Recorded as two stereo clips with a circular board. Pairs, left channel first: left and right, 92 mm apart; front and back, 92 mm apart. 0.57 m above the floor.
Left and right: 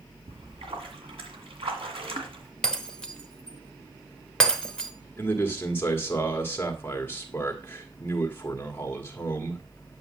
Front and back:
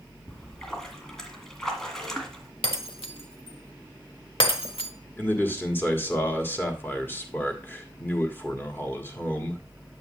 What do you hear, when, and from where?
0.3 s a splash: 85° right, 1.7 m
2.6 s breaking glass: 10° left, 0.9 m
5.2 s a man speaking: 45° left, 1.4 m